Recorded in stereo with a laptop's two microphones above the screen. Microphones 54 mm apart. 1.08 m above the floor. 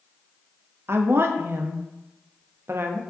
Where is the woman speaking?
50° right (ahead or behind), 0.6 m.